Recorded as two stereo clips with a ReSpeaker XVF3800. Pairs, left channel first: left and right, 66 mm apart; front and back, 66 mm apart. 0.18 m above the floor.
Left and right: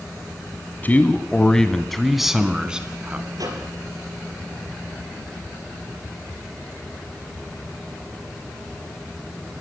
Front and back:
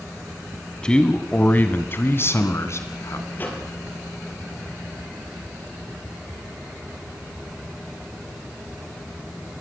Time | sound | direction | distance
0.8 | a man speaking | 65° left | 1.6 m
3.4 | a microwave | 60° right | 4 m